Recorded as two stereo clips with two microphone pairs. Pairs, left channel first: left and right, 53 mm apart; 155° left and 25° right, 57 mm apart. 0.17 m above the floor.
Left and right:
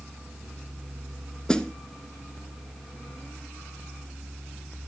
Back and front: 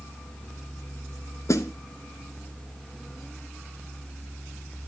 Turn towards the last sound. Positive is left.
turn(degrees=165)